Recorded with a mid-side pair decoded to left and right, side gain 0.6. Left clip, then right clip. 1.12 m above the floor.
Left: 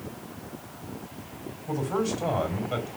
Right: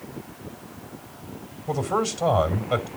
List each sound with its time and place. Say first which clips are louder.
1.7 s a man speaking: right 4 dB; 45° right, 3 m